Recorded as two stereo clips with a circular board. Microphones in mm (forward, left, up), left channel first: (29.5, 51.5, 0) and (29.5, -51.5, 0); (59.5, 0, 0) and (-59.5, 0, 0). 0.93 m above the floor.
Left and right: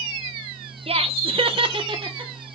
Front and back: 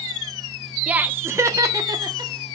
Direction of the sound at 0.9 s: 100° right.